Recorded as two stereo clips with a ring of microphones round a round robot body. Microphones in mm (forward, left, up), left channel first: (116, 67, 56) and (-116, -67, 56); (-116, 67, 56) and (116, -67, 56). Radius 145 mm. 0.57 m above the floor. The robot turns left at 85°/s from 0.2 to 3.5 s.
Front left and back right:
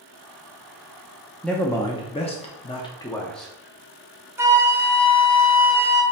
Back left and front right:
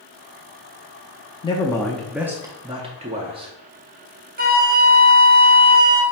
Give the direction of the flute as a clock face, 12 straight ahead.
2 o'clock.